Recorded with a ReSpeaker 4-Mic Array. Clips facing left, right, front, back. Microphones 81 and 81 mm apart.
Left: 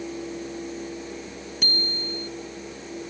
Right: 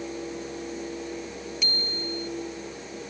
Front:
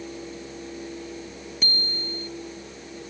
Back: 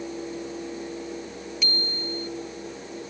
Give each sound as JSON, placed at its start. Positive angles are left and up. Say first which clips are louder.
{"t": 1.6, "sound": "a bicycle bell", "louder": "left 5 dB, even", "azimuth_deg": 50}